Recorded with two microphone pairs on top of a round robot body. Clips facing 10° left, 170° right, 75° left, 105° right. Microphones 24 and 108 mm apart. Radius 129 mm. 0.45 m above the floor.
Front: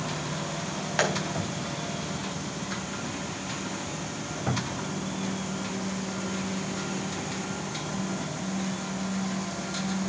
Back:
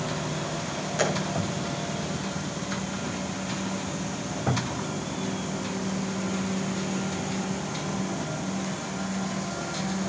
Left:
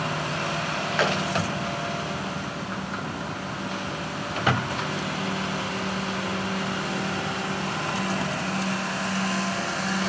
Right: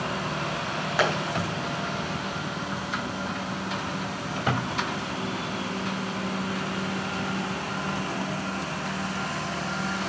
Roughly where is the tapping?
Ahead right.